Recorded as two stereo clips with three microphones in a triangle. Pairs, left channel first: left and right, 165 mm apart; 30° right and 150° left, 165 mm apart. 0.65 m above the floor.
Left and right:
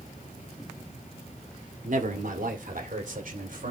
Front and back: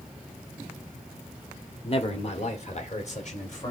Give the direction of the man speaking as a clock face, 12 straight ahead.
3 o'clock.